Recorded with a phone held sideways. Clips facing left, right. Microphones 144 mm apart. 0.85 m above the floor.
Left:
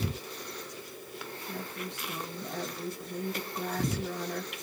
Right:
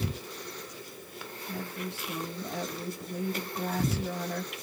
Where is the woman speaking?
5° right (ahead or behind), 1.8 m.